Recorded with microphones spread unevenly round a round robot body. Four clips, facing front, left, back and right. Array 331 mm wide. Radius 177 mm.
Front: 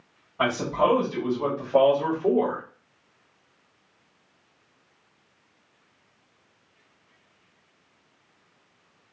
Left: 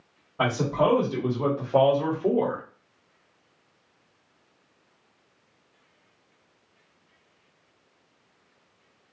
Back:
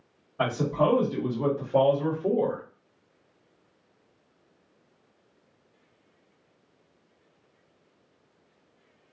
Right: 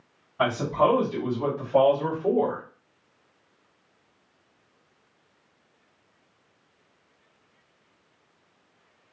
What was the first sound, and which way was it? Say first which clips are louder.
A man speaking: right 1 dB, front 2 dB; 105° left.